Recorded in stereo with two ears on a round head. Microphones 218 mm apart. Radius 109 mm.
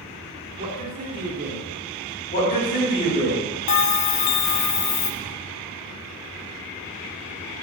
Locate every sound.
0.6 s a man speaking: 40° right (ahead or behind), 1.7 m
2.3 s a man speaking: 45° left (ahead or behind), 3.5 m
3.7 s a bell: 70° left (ahead or behind), 0.5 m